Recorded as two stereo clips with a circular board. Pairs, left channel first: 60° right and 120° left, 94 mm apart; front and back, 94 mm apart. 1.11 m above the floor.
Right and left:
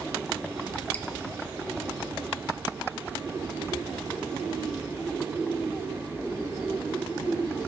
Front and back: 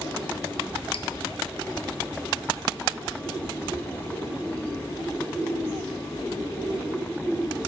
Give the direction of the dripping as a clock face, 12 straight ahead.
12 o'clock.